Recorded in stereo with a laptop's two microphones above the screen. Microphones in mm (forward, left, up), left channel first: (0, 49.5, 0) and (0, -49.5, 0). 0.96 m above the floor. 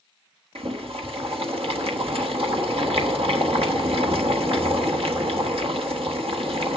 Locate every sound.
0.6 s boiling: 70° right (ahead or behind), 1.1 m